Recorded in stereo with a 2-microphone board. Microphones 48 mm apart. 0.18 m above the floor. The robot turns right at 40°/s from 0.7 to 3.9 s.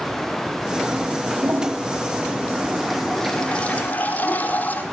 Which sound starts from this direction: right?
A toilet flushing, at 1.4 s.